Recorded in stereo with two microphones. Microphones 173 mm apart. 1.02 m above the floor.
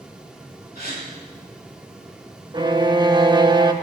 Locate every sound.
0.8 s a gasp: 65° left (ahead or behind), 3 m
2.5 s a violin: 25° right (ahead or behind), 0.6 m